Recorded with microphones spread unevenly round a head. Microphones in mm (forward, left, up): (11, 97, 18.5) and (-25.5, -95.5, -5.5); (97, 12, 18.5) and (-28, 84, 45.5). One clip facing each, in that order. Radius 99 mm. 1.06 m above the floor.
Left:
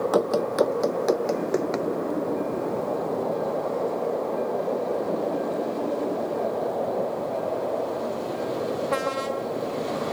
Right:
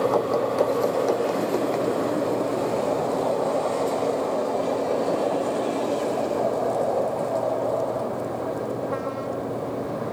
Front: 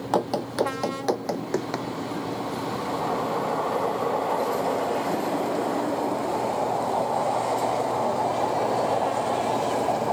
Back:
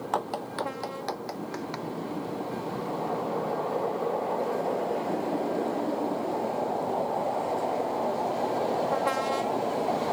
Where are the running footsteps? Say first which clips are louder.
Even, front 8 dB; 20° left; by 1.9 s straight ahead.